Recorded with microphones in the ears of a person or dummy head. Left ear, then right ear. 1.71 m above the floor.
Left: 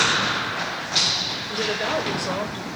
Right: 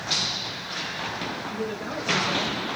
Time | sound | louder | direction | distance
1.5 | a woman speaking | left 7 dB | 40° left (ahead or behind) | 0.8 m